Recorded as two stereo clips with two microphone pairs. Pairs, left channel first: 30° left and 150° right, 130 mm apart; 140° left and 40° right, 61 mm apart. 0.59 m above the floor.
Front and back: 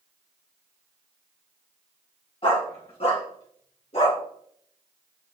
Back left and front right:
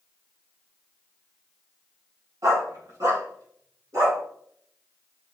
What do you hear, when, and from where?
2.4 s a dog barking: 15° right, 2.5 m; by 4.2 s 5° right, 3.5 m